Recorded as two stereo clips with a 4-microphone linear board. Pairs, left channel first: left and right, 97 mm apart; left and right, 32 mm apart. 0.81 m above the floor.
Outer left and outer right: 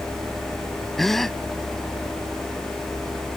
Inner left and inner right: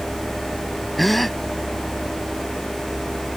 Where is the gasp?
5° left (ahead or behind).